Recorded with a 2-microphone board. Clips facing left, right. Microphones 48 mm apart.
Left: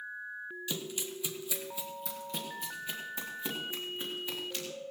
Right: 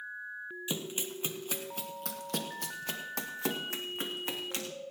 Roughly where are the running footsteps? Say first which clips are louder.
Right 3 dB; right.